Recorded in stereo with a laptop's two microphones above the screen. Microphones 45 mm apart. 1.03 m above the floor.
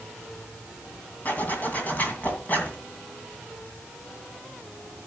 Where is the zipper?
35° left (ahead or behind), 2.5 m.